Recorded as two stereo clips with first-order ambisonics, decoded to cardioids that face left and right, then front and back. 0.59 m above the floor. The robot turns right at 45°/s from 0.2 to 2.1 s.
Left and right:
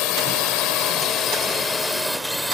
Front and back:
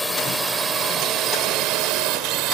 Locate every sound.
0.0 s a drone: 90° left; by 2.5 s straight behind